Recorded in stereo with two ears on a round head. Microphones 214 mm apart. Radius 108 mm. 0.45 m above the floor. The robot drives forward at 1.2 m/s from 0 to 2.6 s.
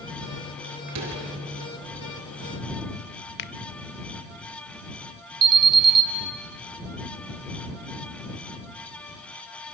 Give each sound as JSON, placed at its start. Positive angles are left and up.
{"t": 0.9, "sound": "a door slam", "side_deg": -85, "distance_m": 5.0}
{"t": 3.4, "sound": "a finger snap", "side_deg": 50, "distance_m": 1.0}
{"t": 5.4, "sound": "an alarm", "side_deg": -40, "distance_m": 2.5}